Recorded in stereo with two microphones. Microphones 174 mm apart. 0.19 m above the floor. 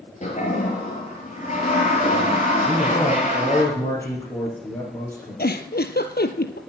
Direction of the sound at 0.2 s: 45° left (ahead or behind).